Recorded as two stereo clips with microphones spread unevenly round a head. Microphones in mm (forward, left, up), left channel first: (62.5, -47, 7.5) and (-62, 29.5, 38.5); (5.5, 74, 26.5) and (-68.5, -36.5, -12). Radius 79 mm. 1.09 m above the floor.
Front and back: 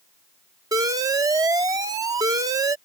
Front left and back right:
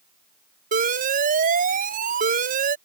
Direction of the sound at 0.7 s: 145° right.